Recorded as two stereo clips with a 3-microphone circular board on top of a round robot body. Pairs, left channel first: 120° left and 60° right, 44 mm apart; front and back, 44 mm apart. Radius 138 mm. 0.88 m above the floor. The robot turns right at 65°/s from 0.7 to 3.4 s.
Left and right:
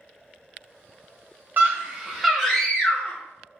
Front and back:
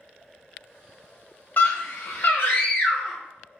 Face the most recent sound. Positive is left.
turn(degrees=90)